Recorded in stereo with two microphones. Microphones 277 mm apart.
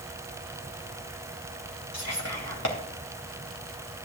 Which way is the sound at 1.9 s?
70° left (ahead or behind).